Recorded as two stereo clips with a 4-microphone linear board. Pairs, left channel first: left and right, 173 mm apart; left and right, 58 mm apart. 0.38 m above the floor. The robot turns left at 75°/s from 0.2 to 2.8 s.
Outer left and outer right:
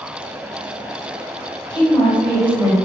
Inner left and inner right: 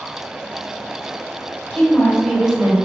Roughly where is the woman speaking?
Ahead left.